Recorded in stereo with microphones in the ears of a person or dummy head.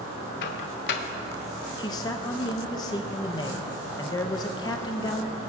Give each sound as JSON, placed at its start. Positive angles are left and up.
{"t": 0.4, "sound": "a microwave", "side_deg": 55, "distance_m": 0.7}
{"t": 1.8, "sound": "a man speaking", "side_deg": 20, "distance_m": 0.6}